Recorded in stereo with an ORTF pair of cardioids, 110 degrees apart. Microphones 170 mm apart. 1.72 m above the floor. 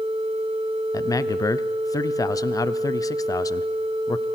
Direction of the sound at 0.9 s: 20° left.